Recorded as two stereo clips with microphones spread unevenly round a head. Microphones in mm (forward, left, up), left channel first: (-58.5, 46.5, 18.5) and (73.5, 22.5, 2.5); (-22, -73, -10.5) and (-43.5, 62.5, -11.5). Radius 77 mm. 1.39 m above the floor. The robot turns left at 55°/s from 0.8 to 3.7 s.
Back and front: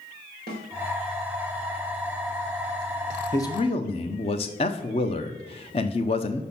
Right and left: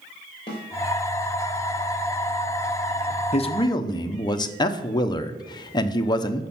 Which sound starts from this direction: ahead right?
A snare drum, at 0.5 s.